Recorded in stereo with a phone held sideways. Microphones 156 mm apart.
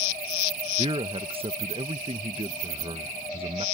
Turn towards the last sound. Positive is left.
turn(degrees=-40)  # may be behind; listen again after turning